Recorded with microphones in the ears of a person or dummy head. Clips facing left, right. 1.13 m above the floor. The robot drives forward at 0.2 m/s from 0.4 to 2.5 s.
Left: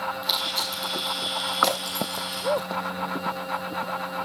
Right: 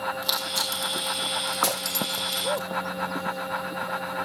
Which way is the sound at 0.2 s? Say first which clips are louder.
Even; 70° right (ahead or behind).